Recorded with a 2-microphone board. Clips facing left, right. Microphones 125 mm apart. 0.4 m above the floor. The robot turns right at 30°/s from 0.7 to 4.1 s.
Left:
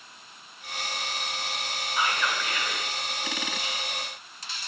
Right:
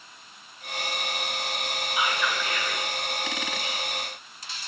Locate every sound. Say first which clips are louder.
2.0 s whispering: even; 10° right (ahead or behind), 1.3 m; by 2.9 s 5° left (ahead or behind), 1.3 m